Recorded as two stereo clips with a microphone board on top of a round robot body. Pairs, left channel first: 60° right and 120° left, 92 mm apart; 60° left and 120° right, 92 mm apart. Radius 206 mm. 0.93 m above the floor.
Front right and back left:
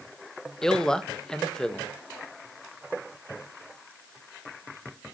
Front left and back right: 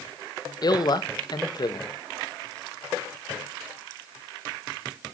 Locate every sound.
0.6 s a man speaking: 25° left, 1.3 m